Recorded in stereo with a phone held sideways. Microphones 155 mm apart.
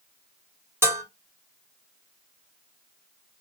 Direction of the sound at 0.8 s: 15° right (ahead or behind).